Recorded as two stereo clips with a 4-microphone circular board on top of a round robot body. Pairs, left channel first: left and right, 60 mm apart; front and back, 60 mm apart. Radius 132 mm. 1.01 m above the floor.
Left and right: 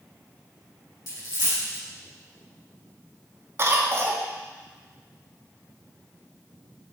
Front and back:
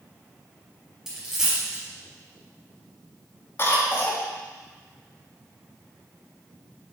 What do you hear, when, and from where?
1.1 s a dropped coin: 100° left, 3.5 m
3.6 s a cough: 45° right, 1.5 m